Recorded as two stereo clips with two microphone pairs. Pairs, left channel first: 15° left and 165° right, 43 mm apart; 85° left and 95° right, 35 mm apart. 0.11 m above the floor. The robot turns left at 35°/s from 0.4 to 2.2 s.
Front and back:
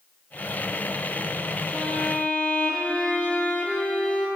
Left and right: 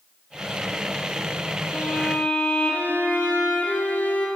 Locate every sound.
1.7 s a violin: 80° left, 1.3 m; by 4.3 s 65° left, 1.3 m